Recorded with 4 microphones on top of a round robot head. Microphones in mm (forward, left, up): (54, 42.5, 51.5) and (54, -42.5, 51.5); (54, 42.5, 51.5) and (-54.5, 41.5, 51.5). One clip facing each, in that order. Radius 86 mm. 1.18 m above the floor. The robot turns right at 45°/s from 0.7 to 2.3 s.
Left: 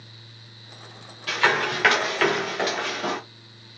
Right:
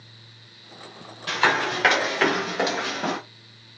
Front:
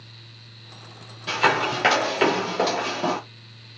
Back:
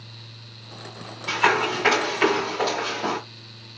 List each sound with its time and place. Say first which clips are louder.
1.3 s running footsteps: even, even; 40° right, 2.0 m; by 3.2 s 50° right, 1.4 m